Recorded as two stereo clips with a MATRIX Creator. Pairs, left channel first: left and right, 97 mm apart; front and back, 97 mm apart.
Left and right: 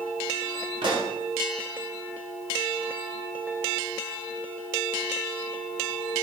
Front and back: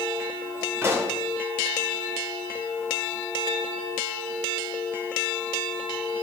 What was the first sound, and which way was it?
A pop, 115° right.